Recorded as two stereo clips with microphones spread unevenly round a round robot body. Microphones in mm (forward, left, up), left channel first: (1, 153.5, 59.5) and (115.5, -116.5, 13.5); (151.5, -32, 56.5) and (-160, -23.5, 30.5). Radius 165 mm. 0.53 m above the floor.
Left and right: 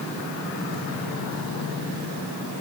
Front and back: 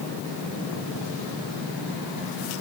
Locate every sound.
Only background noise.